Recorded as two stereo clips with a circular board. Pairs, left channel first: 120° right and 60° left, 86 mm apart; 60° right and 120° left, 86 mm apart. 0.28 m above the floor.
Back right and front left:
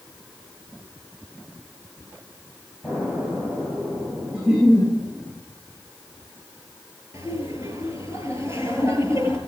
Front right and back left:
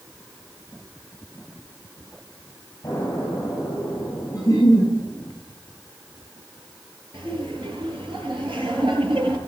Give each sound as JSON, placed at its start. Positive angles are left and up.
{"t": 2.8, "sound": "an explosion", "azimuth_deg": -5, "distance_m": 8.0}
{"t": 4.3, "sound": "a giggle", "azimuth_deg": -15, "distance_m": 9.0}
{"t": 7.1, "sound": "laughter", "azimuth_deg": 115, "distance_m": 6.5}